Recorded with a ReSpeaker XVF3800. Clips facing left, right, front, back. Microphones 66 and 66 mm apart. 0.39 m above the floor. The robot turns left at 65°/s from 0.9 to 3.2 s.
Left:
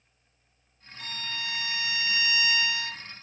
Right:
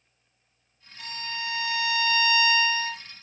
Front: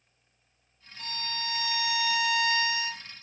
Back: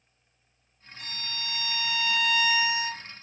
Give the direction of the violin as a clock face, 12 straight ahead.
12 o'clock.